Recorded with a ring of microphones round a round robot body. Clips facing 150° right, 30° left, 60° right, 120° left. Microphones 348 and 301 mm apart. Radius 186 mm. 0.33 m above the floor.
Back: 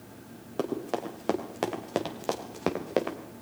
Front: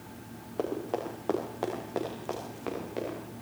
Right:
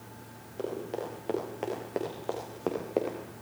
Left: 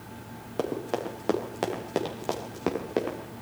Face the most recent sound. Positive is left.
turn(degrees=-165)